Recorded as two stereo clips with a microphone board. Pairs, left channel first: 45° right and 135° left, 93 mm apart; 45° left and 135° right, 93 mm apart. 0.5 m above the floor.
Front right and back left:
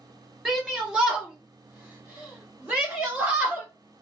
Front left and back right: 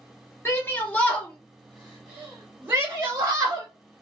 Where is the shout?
50° left, 1.3 m; by 3.7 s 165° right, 1.7 m.